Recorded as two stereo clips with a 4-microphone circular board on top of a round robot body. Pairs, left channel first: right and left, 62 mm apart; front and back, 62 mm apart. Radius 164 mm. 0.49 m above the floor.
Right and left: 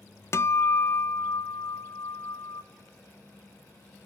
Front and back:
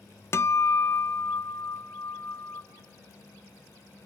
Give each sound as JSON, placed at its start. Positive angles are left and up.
{"t": 0.3, "sound": "a guitar", "azimuth_deg": -45, "distance_m": 0.7}